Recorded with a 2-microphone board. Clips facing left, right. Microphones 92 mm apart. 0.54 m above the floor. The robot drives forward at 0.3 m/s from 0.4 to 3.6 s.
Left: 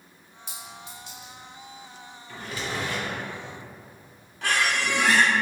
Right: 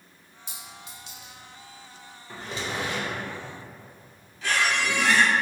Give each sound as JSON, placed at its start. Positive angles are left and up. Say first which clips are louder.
{"t": 0.5, "sound": "a clink", "louder": "left 3 dB", "side_deg": 50, "distance_m": 1.4}
{"t": 2.3, "sound": "a drawer", "louder": "even", "side_deg": -25, "distance_m": 0.7}
{"t": 4.4, "sound": "a squeak", "louder": "even", "side_deg": 60, "distance_m": 0.8}